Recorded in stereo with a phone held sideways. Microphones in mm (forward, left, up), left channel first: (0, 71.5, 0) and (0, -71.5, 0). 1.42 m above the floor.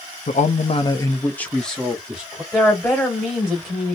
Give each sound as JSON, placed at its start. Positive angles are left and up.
{"t": 0.3, "sound": "a man speaking", "side_deg": 65, "distance_m": 0.5}
{"t": 2.5, "sound": "a woman speaking", "side_deg": 10, "distance_m": 1.5}